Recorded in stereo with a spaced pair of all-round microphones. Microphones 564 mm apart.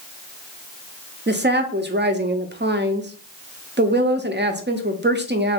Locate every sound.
1.3 s a woman speaking: 20° right (ahead or behind), 0.6 m